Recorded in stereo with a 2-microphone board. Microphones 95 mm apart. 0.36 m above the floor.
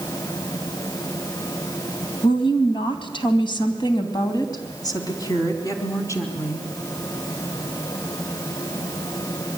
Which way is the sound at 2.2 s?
65° left (ahead or behind).